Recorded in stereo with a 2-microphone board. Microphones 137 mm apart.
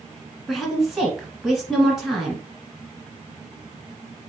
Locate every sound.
0.5 s a woman speaking: centre (ahead or behind), 1.6 m